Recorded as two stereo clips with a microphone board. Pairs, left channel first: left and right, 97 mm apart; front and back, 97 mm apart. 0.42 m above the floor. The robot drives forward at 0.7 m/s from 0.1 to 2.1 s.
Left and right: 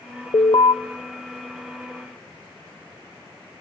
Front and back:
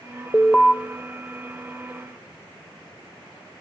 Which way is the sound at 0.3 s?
70° left.